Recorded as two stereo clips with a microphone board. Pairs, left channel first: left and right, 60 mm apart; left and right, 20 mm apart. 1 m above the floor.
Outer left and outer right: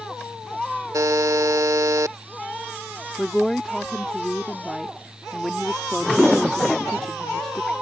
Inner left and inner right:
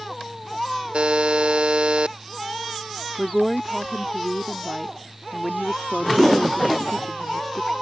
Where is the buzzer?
65° right (ahead or behind).